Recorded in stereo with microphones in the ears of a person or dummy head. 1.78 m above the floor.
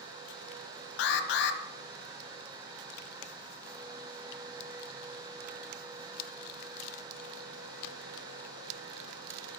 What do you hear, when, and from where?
1.0 s an alarm: 60° left (ahead or behind), 0.7 m